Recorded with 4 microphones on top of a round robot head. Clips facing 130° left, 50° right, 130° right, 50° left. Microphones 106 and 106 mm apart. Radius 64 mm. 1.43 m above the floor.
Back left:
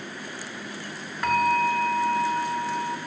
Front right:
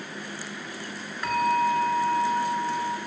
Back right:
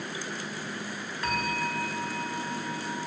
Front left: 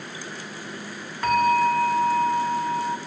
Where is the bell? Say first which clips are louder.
Back left 1 dB, front left 12 dB; 90° left, 1.5 m.